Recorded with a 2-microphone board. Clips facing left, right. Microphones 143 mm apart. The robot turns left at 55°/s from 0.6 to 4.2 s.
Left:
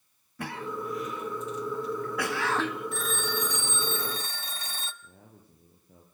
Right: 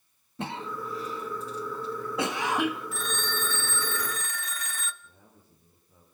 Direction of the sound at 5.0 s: 65° left (ahead or behind).